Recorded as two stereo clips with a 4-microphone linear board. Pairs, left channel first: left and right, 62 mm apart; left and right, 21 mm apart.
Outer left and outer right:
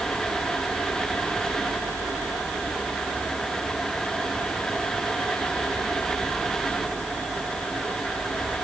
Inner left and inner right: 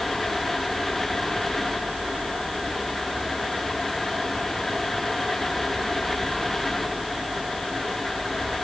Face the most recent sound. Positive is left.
No sound to turn to.